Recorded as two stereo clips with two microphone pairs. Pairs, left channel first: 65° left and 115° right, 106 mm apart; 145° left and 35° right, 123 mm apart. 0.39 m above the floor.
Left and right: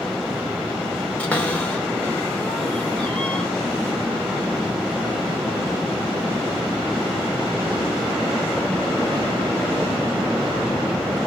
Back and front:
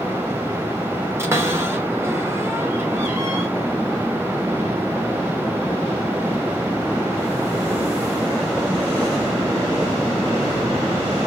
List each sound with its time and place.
1.2 s a cupboard door: straight ahead, 0.9 m